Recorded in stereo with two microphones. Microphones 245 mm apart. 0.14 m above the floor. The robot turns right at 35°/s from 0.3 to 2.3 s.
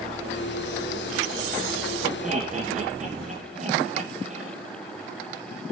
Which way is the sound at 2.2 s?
30° right (ahead or behind).